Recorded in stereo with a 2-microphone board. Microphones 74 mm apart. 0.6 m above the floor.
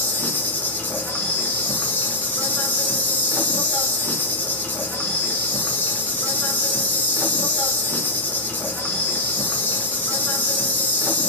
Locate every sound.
0.0 s an insect: 25° left (ahead or behind), 0.8 m